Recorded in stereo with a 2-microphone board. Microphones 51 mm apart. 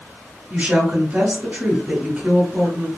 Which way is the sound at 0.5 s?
30° right (ahead or behind).